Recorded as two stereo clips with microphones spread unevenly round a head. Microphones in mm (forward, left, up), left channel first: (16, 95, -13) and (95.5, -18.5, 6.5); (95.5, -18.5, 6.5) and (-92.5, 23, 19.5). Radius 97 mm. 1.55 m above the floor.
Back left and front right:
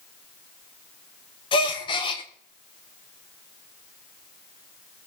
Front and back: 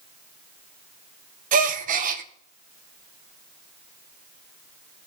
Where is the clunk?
No clunk in this recording.